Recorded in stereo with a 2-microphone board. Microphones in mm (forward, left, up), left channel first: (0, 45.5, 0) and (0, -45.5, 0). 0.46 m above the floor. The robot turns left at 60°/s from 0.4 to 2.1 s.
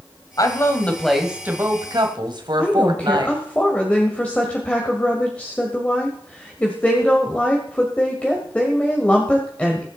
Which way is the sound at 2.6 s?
15° left (ahead or behind).